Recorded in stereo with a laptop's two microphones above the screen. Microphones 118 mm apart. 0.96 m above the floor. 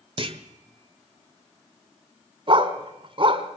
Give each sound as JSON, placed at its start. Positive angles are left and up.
{"t": 0.2, "sound": "a clunk", "side_deg": -50, "distance_m": 1.2}
{"t": 2.5, "sound": "a dog barking", "side_deg": -45, "distance_m": 2.0}